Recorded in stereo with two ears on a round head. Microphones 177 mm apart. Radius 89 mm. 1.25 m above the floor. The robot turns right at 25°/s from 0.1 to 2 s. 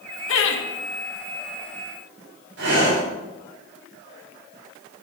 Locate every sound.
0.3 s laughter: 75° left (ahead or behind), 1.7 m; by 0.6 s 65° left (ahead or behind), 1.7 m
2.6 s breathing: 85° right, 5 m